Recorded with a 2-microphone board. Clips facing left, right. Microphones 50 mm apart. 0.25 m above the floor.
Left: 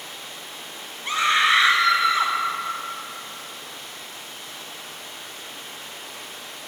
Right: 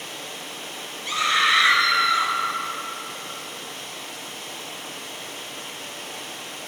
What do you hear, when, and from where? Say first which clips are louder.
0.0 s running water: right 3 dB; 70° right (ahead or behind), 0.9 m
1.1 s a scream: left 1 dB; 30° left (ahead or behind), 1.3 m